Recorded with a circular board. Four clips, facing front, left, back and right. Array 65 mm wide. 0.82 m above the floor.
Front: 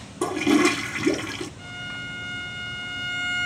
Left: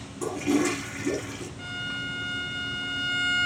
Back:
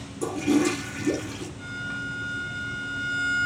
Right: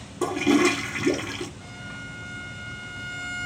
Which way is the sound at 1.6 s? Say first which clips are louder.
Left 5 dB, back 3 dB; 75° left.